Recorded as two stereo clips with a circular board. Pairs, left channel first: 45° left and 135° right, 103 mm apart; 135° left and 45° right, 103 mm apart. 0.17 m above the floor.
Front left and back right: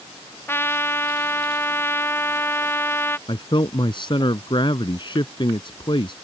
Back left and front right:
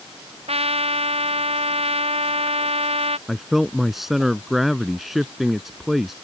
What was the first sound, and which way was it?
A trumpet, 25° right.